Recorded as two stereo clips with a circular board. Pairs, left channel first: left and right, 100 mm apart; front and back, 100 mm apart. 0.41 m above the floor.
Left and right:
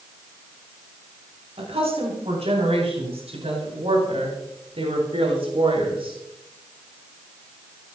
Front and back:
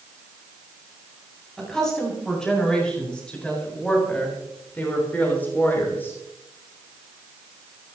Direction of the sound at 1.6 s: 85° right.